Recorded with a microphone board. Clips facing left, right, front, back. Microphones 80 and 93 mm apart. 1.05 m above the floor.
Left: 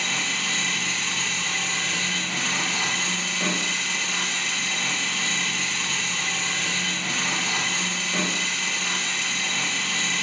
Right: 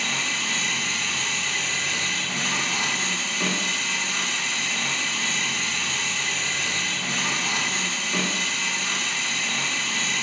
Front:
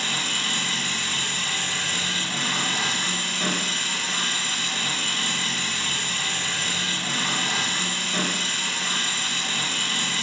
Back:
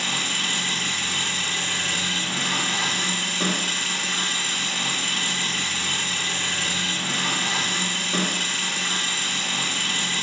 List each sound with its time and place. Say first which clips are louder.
0.0 s an engine running: even, back 1 dB; 160° right, 1.1 m